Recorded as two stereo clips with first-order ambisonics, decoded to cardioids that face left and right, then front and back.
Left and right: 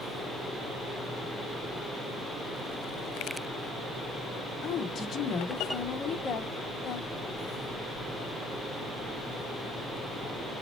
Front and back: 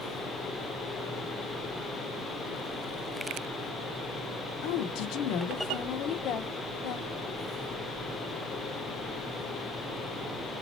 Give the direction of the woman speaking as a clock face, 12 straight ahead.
11 o'clock.